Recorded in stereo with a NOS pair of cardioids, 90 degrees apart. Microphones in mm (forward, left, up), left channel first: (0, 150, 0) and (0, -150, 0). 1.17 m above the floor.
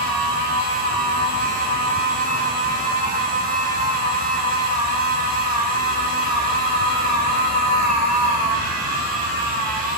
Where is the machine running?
30° right, 1.2 m.